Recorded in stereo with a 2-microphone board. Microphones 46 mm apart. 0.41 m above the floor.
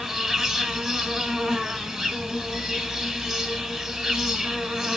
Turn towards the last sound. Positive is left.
turn(degrees=-10)  # may be behind; listen again after turning